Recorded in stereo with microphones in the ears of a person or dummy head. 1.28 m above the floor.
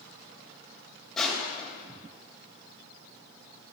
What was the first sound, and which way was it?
Crushing, 5° left (ahead or behind).